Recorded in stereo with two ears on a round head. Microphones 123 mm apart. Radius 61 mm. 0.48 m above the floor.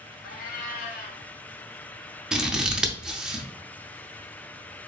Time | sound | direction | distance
0.2 | a cat meowing | 75° left (ahead or behind) | 1.5 m
2.3 | scissors | 5° right (ahead or behind) | 0.5 m